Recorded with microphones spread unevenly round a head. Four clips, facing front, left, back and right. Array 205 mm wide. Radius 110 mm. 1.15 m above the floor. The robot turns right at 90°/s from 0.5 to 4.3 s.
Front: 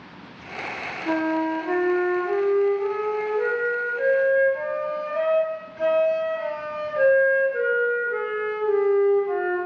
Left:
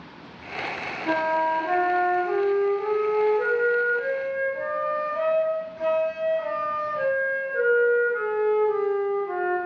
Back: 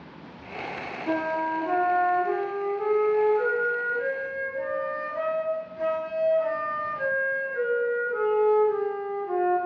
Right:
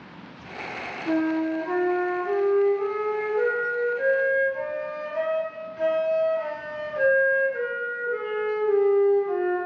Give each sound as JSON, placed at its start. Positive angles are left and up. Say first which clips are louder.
{"t": 1.1, "sound": "a flute", "louder": "left 1 dB, front 4 dB", "azimuth_deg": 50, "distance_m": 3.0}